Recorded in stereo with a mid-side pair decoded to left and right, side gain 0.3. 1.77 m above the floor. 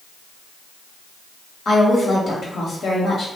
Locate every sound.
1.6 s a woman speaking: 70° left, 1.4 m